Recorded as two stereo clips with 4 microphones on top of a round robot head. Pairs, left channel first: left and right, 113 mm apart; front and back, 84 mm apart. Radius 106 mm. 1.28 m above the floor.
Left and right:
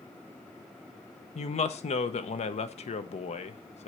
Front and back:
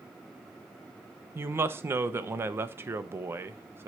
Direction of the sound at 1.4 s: 115° left.